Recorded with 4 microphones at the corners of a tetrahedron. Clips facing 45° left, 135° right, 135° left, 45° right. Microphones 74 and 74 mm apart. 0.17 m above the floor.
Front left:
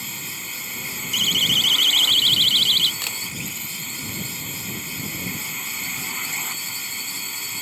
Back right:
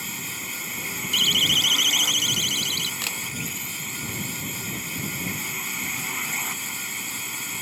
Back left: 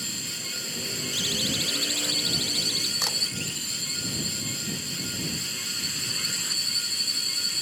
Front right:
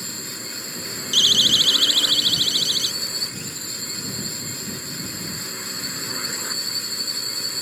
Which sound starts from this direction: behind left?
A camera shutter, at 3.0 s.